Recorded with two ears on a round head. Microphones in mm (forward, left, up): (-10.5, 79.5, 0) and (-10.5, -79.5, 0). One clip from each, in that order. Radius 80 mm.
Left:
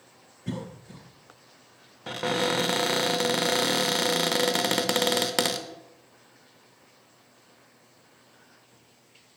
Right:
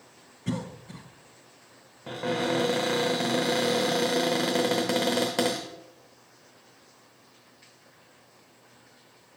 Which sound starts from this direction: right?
A cough, at 0.5 s.